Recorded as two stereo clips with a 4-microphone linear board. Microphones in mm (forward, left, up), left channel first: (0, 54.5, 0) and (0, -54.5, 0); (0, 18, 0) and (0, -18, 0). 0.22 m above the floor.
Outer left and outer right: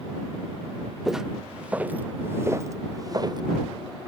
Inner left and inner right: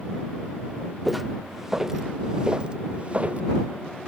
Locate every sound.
1.1 s footsteps: centre (ahead or behind); by 3.4 s 40° right (ahead or behind)